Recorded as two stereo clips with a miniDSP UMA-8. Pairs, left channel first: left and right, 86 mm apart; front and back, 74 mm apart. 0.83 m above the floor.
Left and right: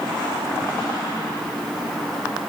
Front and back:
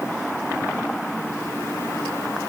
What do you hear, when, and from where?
Only background noise.